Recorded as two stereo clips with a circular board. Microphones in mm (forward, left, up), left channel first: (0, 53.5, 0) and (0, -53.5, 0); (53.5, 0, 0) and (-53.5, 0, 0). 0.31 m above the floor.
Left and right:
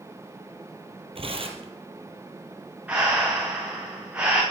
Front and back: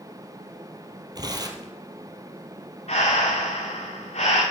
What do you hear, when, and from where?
1.1 s tearing paper: 125° right, 1.9 m
2.9 s breathing: 15° right, 4.5 m